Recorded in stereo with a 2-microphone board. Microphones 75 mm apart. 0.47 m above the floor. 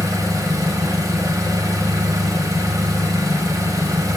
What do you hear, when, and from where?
0.0 s an engine running: 55° right (ahead or behind), 1.3 m